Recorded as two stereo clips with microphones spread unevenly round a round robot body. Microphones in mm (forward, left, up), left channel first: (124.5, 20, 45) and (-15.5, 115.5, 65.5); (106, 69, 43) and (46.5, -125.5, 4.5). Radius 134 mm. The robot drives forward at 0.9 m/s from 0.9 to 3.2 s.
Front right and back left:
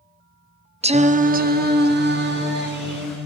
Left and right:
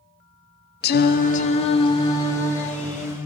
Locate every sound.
0.8 s singing: 105° left, 1.0 m; by 3.3 s 165° left, 2.5 m